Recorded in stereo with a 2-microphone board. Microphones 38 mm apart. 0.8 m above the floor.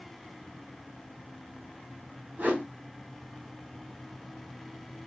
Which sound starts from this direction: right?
A whoosh, at 2.4 s.